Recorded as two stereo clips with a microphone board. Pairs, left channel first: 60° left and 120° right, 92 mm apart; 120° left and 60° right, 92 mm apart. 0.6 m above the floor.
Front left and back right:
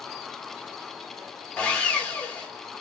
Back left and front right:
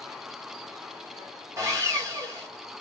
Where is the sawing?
20° right, 0.9 m.